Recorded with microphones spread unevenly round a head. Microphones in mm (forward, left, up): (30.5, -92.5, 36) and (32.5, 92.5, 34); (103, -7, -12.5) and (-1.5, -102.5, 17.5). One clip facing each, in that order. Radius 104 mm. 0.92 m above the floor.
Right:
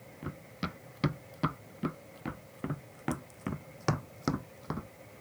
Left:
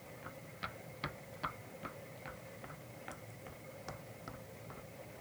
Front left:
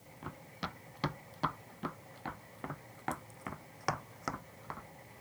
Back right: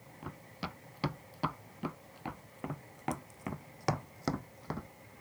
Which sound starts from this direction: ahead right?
Running footsteps, at 0.2 s.